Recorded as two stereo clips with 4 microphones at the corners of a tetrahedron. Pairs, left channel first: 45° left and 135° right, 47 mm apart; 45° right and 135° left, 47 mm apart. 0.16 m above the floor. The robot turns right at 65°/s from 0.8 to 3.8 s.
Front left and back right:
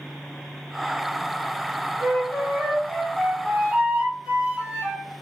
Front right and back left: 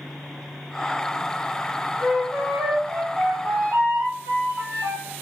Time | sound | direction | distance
2.0 | a flute | 45° left | 1.5 m